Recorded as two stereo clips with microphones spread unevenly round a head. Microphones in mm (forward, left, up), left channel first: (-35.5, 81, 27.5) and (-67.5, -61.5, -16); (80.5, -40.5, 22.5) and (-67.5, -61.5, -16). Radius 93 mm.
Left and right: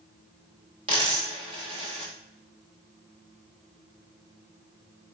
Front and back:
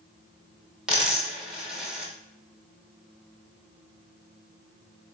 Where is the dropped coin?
55° right, 1.2 m.